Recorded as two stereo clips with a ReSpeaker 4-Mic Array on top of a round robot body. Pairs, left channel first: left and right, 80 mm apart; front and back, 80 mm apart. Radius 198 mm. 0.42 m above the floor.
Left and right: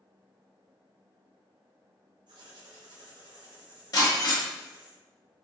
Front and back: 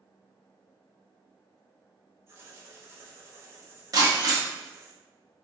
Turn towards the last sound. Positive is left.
turn(degrees=130)